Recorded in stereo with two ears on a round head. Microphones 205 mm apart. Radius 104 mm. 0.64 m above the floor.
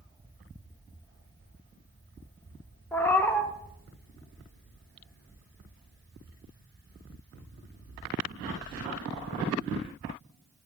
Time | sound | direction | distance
2.9 | a cat meowing | 10° left (ahead or behind) | 0.6 m